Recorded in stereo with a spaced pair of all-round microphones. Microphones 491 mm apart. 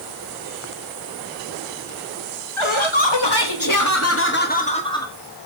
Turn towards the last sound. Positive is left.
turn(degrees=5)  # may be behind; listen again after turning